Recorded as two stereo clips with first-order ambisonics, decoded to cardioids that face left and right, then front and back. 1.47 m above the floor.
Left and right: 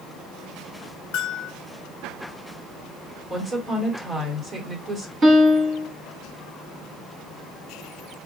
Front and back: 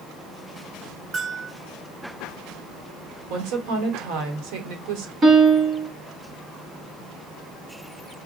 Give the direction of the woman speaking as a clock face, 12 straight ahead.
6 o'clock.